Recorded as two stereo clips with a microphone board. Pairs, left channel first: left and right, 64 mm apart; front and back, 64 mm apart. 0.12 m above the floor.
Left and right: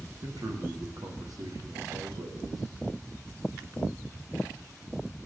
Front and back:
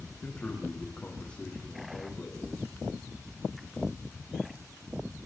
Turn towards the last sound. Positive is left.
turn(degrees=-75)